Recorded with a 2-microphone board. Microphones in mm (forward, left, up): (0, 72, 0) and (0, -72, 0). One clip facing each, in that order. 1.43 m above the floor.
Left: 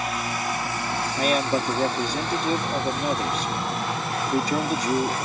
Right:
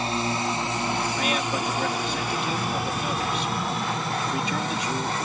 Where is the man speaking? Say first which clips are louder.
Left 4 dB; 40° left (ahead or behind).